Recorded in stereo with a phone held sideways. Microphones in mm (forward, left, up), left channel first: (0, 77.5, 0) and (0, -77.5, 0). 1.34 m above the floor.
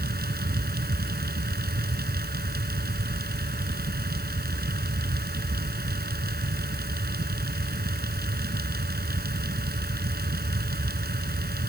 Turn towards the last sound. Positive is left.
turn(degrees=-85)